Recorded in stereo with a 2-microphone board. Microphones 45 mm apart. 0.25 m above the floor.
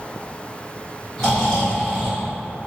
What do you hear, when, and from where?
1.2 s snoring: 5° left (ahead or behind), 1.6 m